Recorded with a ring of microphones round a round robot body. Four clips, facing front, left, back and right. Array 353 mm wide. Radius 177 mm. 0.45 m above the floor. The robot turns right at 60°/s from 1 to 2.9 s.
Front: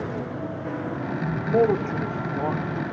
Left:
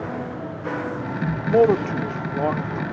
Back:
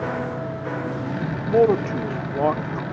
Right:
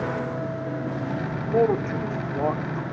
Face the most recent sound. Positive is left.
turn(degrees=-165)